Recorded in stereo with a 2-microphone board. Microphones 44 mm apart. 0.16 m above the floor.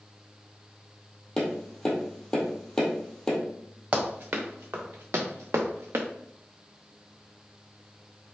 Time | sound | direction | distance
1.4 | tapping | 15° left (ahead or behind) | 1.8 m
3.9 | running footsteps | 40° right (ahead or behind) | 1.6 m